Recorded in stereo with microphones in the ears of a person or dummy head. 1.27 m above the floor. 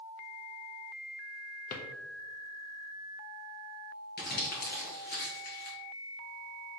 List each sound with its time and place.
1.7 s a drawer: 45° left (ahead or behind), 0.6 m
4.2 s crumpling: 50° left (ahead or behind), 1.0 m